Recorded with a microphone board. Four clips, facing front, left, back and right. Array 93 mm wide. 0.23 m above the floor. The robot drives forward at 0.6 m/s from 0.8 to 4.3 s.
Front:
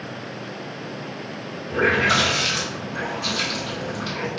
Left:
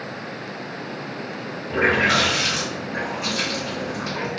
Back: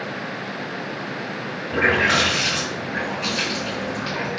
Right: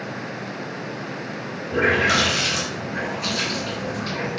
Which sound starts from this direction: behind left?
A running tap, at 1.7 s.